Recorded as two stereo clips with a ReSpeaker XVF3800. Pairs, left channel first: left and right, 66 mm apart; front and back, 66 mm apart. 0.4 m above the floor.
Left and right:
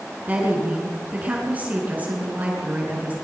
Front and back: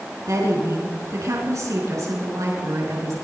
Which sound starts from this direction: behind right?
A woman speaking, at 0.3 s.